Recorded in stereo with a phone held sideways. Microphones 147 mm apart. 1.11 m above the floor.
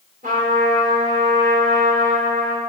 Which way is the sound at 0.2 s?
75° right (ahead or behind).